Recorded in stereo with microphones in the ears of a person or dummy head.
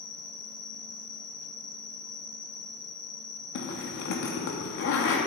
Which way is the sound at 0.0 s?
10° left (ahead or behind).